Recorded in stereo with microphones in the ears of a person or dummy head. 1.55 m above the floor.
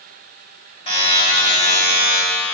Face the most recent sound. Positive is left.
turn(degrees=25)  # may be behind; listen again after turning